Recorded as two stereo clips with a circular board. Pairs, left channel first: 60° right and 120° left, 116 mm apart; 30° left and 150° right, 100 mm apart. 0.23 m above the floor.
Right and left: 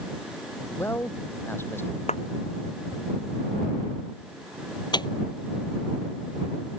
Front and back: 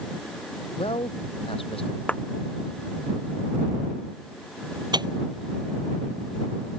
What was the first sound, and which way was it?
A man speaking, 10° left.